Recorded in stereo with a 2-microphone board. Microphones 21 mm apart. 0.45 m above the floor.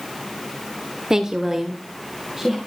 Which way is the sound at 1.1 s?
25° right (ahead or behind).